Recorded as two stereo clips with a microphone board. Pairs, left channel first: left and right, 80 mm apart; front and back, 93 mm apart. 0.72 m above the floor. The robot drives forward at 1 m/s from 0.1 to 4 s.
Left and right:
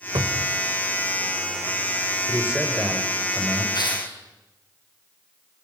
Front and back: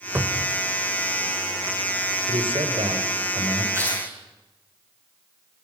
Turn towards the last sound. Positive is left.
turn(degrees=120)